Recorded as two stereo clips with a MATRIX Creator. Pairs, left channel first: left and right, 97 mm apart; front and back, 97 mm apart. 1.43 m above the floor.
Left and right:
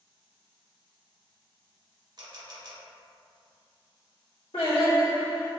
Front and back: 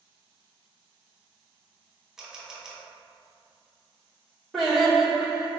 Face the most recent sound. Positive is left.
turn(degrees=90)